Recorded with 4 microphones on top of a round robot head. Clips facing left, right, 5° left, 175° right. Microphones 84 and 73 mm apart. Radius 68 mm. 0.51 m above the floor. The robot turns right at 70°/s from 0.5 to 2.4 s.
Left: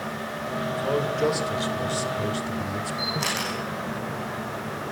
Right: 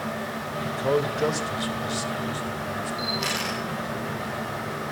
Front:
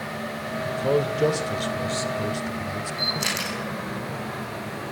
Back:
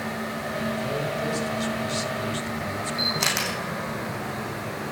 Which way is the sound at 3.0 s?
155° left.